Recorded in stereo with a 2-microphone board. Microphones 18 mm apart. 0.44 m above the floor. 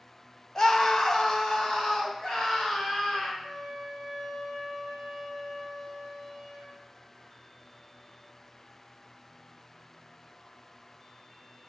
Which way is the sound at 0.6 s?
30° left (ahead or behind).